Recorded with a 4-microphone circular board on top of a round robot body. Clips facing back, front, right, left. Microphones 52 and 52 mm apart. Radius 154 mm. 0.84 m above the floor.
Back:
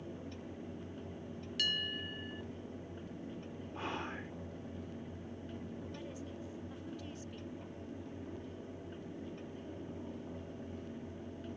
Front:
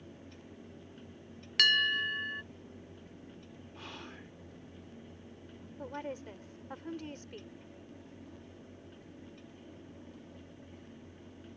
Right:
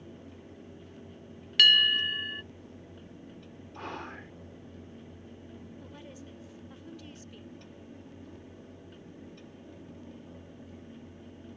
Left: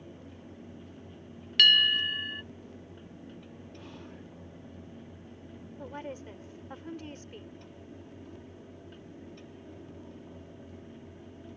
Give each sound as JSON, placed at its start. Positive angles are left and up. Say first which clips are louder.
{"t": 1.6, "sound": "a bell", "louder": "front 10 dB, even", "azimuth_deg": -5}
{"t": 3.8, "sound": "whispering", "louder": "back 7 dB, right 10 dB", "azimuth_deg": -120}
{"t": 5.8, "sound": "a woman speaking", "louder": "front 5 dB, left 7 dB", "azimuth_deg": 40}